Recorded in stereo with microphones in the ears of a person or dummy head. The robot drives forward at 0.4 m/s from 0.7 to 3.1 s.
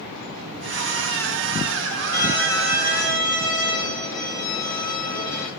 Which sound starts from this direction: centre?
A violin, at 2.1 s.